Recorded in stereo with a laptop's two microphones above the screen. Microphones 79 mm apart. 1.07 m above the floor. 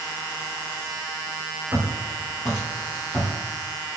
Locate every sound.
1.7 s footsteps: 20° right (ahead or behind), 1.3 m; by 3.3 s 10° left (ahead or behind), 1.5 m